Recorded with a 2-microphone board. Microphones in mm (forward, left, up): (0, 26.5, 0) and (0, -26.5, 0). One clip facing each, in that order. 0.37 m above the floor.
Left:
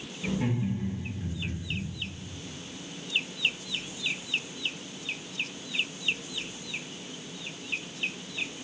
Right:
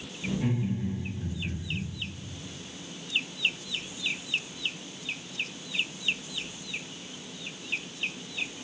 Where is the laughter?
45° left (ahead or behind), 3.5 m; by 1.8 s 40° left (ahead or behind), 4 m.